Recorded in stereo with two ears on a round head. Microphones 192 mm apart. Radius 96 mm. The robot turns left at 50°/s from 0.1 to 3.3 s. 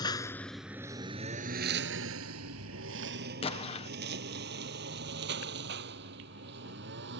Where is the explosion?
30° left (ahead or behind).